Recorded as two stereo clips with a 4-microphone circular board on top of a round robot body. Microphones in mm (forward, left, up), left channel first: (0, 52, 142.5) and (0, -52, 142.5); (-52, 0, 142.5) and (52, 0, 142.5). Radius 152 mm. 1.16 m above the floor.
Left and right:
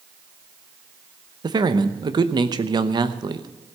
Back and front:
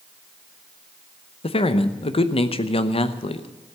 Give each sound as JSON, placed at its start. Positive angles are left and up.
{"t": 1.4, "sound": "a man speaking", "azimuth_deg": -145, "distance_m": 0.9}